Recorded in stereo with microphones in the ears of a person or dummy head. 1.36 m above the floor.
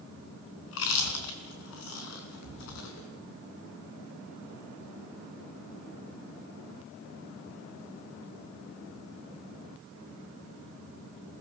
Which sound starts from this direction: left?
Chewing, at 0.7 s.